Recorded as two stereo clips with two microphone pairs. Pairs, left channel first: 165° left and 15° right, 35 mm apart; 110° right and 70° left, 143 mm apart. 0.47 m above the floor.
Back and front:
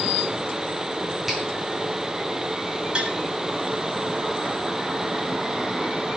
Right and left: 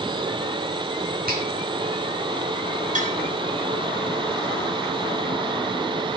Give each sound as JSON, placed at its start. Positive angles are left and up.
{"t": 1.3, "sound": "a finger snap", "azimuth_deg": 70, "distance_m": 4.5}
{"t": 3.0, "sound": "tapping", "azimuth_deg": 45, "distance_m": 3.0}